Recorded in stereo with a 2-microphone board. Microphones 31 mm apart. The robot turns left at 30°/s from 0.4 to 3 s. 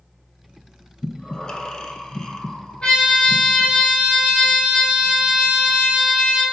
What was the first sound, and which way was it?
Breathing, 25° left (ahead or behind).